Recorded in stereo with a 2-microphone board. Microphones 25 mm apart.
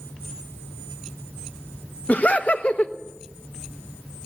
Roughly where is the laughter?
Left.